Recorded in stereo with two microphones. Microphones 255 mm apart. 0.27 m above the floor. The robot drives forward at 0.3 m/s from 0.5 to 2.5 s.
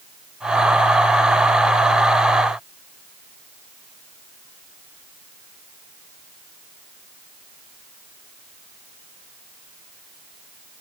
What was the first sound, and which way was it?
Only background noise.